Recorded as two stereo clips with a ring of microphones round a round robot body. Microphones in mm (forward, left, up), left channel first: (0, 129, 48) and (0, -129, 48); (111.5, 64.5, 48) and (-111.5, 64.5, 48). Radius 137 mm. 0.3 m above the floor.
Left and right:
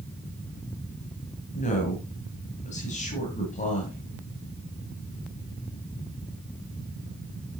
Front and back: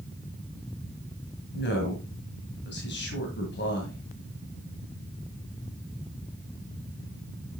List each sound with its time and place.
1.5 s a woman speaking: 30° left, 2 m